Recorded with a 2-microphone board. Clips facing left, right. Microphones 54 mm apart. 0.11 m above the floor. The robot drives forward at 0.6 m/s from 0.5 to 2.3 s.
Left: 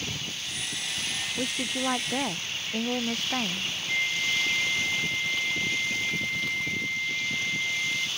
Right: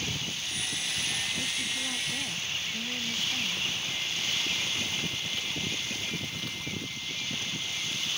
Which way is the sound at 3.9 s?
60° left (ahead or behind).